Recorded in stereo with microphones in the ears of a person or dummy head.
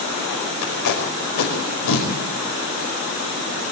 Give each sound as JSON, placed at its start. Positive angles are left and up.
{"t": 0.6, "sound": "tape being pulled", "side_deg": 90, "distance_m": 5.5}